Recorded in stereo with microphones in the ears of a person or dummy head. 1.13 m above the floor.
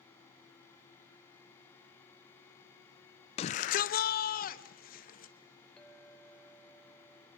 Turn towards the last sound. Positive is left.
turn(degrees=5)  # may be behind; listen again after turning